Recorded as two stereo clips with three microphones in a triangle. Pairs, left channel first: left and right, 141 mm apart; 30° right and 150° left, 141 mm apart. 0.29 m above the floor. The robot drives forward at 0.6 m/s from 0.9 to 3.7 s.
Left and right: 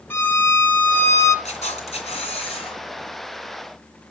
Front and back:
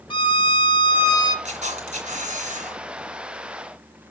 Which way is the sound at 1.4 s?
120° left.